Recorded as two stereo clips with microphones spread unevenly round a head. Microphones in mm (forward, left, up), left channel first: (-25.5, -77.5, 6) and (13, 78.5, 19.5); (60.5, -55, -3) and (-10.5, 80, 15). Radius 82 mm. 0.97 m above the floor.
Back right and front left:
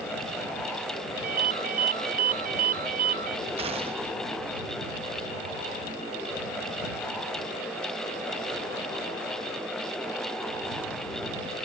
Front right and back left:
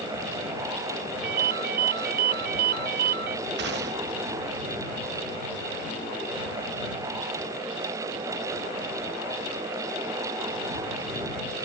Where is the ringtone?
110° left.